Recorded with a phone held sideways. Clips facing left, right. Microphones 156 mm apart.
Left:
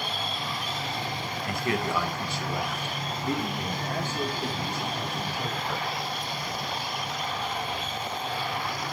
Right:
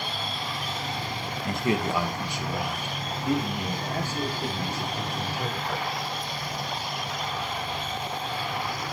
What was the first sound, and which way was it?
A man speaking, 25° right (ahead or behind).